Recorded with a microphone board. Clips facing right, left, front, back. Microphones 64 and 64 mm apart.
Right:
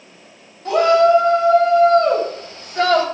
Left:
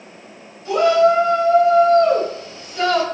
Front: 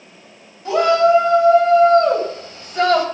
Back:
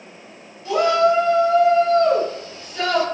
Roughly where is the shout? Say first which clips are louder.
Right 1 dB, front 3 dB; ahead right.